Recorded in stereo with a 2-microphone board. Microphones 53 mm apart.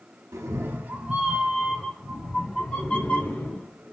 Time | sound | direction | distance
0.3 | a cat meowing | 65° right (ahead or behind) | 0.6 m